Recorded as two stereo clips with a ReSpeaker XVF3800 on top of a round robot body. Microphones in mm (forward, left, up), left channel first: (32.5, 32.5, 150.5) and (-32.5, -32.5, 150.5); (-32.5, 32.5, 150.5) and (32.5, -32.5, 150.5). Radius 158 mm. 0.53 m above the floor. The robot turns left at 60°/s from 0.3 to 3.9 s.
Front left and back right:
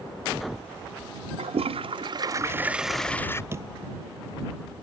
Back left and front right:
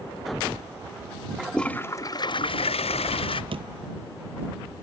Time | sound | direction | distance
1.4 | a toilet flushing | 130° right | ?
3.5 | a door slam | 70° right | ?